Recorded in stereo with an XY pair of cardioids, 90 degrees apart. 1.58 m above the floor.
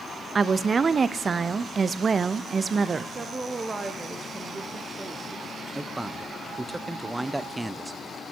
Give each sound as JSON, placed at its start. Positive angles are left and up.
{"t": 0.3, "sound": "a woman speaking", "azimuth_deg": -40, "distance_m": 0.6}
{"t": 3.1, "sound": "a woman speaking", "azimuth_deg": -30, "distance_m": 1.2}
{"t": 5.8, "sound": "a man speaking", "azimuth_deg": -15, "distance_m": 0.6}